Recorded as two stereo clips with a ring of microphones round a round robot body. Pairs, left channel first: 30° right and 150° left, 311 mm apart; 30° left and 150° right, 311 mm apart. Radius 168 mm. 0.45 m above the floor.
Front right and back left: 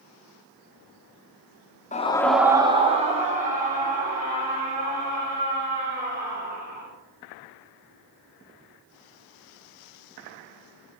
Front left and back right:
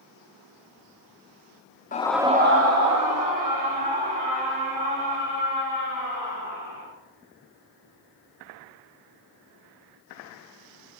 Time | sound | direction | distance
1.9 | a scream | 5° left | 0.8 m